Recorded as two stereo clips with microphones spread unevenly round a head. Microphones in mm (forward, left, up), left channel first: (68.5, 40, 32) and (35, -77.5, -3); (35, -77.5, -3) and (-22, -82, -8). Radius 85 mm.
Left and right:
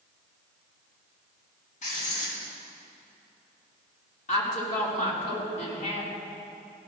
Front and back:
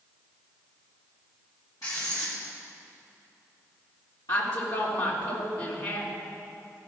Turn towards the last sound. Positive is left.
turn(degrees=55)